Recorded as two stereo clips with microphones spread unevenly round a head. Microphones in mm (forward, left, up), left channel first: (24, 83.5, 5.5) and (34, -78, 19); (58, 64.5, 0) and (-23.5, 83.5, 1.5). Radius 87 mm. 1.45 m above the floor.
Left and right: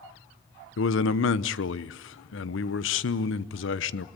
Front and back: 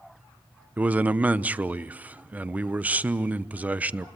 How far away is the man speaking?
About 0.9 m.